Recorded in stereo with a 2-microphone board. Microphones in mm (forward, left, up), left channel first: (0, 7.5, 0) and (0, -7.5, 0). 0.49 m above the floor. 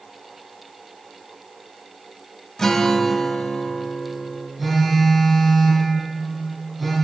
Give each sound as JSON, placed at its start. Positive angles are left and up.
{"t": 2.6, "sound": "a guitar", "side_deg": 30, "distance_m": 1.0}
{"t": 4.6, "sound": "a phone buzzing", "side_deg": -10, "distance_m": 3.5}